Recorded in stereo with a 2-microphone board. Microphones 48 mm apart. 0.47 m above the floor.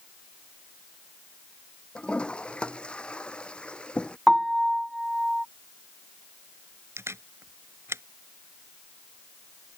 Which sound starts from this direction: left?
A toilet flushing, at 1.9 s.